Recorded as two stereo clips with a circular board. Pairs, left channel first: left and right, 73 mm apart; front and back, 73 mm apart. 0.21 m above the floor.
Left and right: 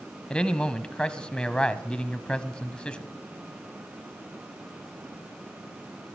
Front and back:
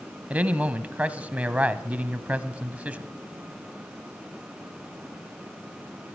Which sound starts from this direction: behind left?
A man speaking, at 0.3 s.